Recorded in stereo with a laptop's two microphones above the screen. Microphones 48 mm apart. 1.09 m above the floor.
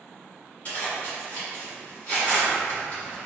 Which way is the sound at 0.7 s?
30° left (ahead or behind).